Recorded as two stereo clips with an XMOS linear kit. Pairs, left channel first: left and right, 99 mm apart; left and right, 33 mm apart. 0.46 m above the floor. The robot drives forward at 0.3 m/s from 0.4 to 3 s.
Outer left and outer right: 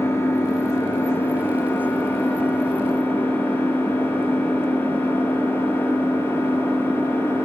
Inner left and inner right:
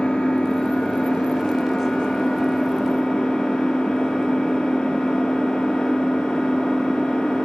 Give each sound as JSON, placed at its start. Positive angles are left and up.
{"t": 0.0, "sound": "an engine running", "side_deg": 25, "distance_m": 2.5}